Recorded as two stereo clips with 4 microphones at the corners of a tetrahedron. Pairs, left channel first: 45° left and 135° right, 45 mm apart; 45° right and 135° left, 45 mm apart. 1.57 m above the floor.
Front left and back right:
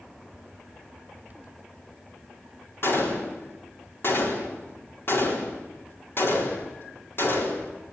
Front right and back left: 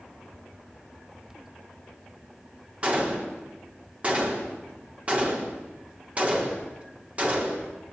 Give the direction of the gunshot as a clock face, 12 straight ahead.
9 o'clock.